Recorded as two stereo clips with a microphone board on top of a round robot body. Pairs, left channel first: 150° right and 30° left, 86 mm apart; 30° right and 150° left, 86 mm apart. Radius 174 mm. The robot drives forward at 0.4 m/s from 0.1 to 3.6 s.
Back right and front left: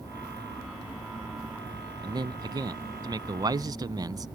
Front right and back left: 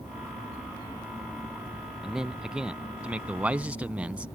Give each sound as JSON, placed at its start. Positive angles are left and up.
{"t": 2.0, "sound": "a man speaking", "azimuth_deg": 65}